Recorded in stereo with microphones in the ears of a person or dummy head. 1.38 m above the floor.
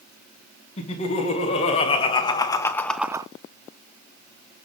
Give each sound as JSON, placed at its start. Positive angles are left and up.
{"t": 0.8, "sound": "laughter", "side_deg": 30, "distance_m": 3.5}